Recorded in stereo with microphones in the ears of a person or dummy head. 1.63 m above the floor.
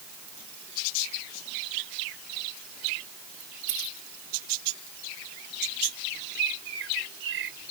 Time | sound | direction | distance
3.7 | a dropped coin | 35° right (ahead or behind) | ?
6.3 | a bird | 65° right (ahead or behind) | ?